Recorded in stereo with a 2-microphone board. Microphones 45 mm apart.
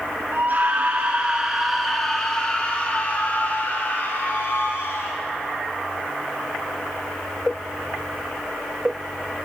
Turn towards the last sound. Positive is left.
turn(degrees=55)  # may be behind; listen again after turning